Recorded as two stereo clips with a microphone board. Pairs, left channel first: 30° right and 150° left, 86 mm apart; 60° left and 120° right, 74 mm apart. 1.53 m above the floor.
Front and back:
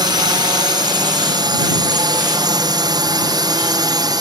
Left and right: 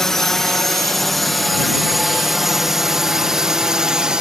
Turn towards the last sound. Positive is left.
turn(degrees=160)